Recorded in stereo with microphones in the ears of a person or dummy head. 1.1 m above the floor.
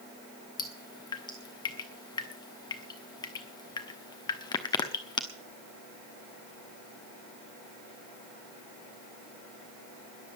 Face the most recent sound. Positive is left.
turn(degrees=20)  # may be behind; listen again after turning